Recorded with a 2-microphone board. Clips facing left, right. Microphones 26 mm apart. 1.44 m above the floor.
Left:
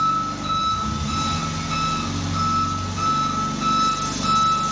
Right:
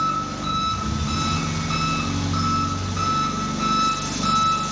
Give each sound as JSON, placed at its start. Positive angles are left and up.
{"t": 0.0, "sound": "an engine running", "side_deg": -30, "distance_m": 0.8}